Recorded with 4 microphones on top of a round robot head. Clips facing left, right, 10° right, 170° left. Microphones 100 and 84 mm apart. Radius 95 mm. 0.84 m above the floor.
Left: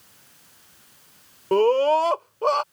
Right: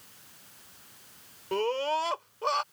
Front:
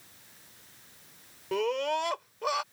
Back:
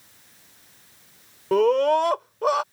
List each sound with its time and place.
1.5 s a scream: 125° left